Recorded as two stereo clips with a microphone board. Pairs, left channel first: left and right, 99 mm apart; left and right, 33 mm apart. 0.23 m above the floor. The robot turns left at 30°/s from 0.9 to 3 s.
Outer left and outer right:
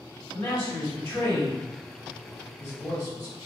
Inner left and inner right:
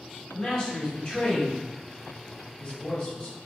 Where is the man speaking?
15° left (ahead or behind), 1.9 m; by 3.4 s 35° left (ahead or behind), 1.9 m.